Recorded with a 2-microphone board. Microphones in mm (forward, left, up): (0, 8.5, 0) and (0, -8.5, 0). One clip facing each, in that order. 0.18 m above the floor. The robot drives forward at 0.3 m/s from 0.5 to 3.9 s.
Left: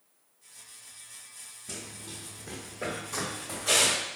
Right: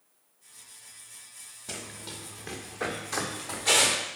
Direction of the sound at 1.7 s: 60° right (ahead or behind).